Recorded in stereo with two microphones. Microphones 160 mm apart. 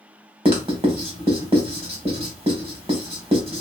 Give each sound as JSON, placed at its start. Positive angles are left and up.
{"t": 0.5, "sound": "writing", "side_deg": -40, "distance_m": 1.3}